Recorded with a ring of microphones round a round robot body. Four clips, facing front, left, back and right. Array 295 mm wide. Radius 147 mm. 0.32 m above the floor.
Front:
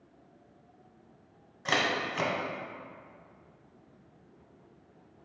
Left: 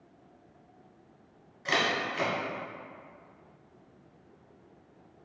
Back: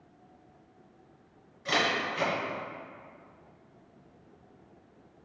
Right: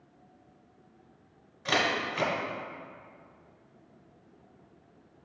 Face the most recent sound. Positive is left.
turn(degrees=-20)